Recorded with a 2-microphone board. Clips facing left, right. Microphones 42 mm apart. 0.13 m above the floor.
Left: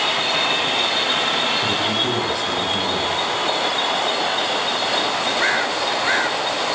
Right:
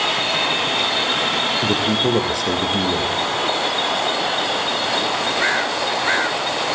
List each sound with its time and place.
1.6 s a man speaking: 60° right (ahead or behind), 4.5 m